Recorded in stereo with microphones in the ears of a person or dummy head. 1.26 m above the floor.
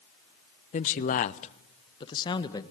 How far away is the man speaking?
About 0.6 m.